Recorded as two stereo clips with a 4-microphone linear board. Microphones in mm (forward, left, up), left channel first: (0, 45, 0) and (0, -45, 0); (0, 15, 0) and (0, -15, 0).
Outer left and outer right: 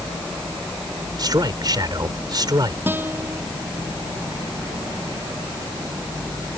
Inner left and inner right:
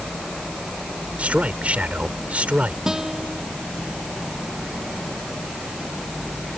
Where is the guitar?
20° right (ahead or behind).